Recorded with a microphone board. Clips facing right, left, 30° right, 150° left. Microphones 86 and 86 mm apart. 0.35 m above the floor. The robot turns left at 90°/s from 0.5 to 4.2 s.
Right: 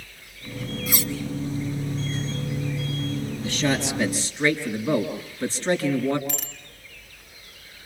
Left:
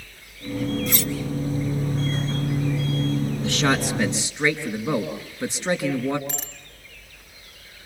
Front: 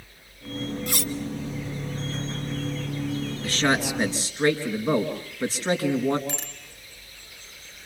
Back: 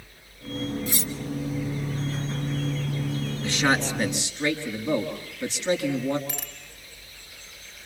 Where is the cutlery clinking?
5° right, 1.7 m; by 1.1 s 25° right, 1.7 m.